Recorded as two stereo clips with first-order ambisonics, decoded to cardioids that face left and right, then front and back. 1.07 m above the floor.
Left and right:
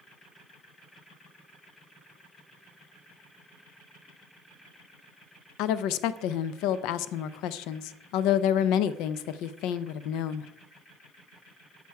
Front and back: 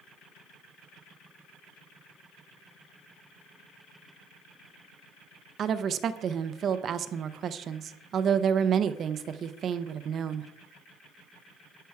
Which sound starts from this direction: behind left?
A woman speaking, at 5.6 s.